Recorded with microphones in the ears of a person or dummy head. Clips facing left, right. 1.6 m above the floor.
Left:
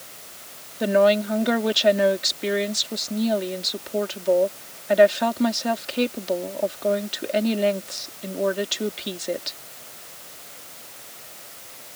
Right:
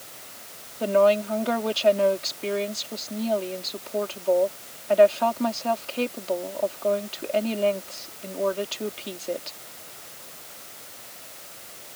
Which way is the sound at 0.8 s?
20° left (ahead or behind).